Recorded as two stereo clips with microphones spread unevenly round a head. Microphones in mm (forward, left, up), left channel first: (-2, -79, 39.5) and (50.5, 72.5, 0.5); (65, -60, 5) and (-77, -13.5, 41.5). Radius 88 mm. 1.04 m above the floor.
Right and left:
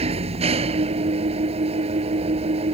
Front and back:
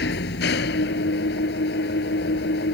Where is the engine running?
15° left.